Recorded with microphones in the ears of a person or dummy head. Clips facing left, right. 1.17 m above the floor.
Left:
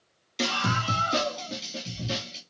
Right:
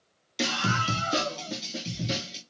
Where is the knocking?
I don't hear knocking.